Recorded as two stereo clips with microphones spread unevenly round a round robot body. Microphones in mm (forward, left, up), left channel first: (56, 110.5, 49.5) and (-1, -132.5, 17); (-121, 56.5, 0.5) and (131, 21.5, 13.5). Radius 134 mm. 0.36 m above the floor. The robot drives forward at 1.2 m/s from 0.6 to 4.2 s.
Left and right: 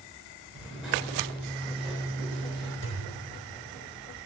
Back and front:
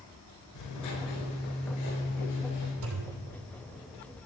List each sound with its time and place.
0.6 s writing: 170° left, 4.5 m; by 2.7 s 175° left, 7 m
2.8 s a thud: 30° left, 3.5 m; by 3.2 s 35° left, 3 m